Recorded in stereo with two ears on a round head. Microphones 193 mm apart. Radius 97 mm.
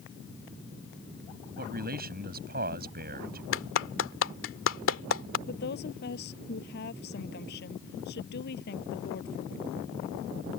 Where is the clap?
65° left (ahead or behind).